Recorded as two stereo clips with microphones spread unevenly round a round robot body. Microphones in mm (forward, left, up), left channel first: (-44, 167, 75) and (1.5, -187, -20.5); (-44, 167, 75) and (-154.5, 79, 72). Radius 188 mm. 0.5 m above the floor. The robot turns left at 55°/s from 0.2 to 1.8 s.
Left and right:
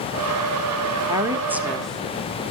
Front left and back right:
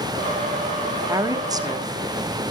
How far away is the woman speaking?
About 1.1 m.